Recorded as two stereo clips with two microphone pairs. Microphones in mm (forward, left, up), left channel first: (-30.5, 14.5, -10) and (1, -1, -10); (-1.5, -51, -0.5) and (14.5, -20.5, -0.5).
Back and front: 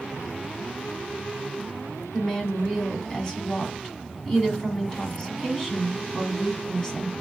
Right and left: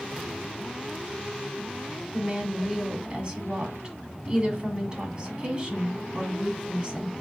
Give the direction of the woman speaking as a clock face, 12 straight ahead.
9 o'clock.